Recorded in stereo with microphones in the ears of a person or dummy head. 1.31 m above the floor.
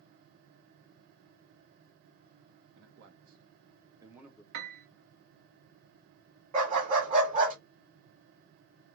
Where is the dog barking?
45° right (ahead or behind), 1.3 m.